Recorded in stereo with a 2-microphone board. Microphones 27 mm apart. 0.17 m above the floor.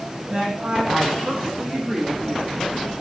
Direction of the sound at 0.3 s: 45° right (ahead or behind).